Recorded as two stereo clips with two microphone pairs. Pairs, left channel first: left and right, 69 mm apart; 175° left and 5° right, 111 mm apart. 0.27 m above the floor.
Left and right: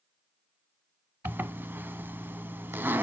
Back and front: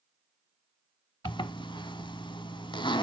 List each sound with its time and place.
1.2 s a zipper: 150° right, 0.6 m